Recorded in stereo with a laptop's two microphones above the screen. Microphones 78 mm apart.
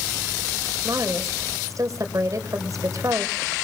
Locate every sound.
0.8 s a woman speaking: 45° right (ahead or behind), 4.5 m